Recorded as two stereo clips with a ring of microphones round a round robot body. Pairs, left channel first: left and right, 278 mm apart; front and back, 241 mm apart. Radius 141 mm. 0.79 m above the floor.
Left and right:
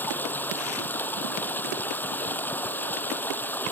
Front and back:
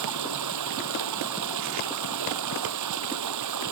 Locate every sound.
0.0 s running water: 175° left